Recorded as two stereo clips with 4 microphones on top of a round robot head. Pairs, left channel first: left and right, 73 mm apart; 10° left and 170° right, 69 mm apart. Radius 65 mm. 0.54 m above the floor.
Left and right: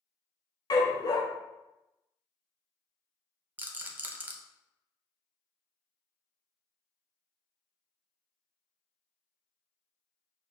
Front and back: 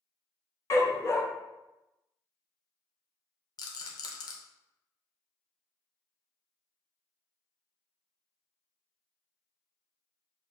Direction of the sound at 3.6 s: 25° right.